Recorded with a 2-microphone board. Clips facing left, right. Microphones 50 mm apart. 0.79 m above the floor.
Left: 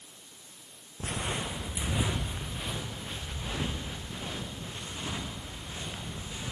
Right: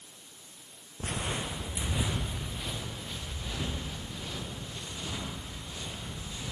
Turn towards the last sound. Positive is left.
turn(degrees=25)  # may be behind; listen again after turning